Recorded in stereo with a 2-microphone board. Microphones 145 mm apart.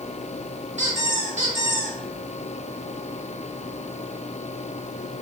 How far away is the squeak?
About 1.7 m.